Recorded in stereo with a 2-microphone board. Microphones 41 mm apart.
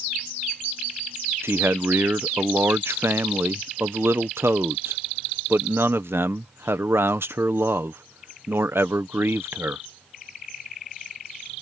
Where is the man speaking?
85° right.